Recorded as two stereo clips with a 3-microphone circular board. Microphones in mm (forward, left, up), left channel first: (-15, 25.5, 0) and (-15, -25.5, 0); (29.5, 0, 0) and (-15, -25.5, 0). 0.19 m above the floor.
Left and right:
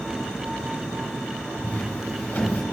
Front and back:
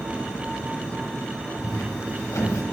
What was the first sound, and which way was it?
Footsteps, 30° left.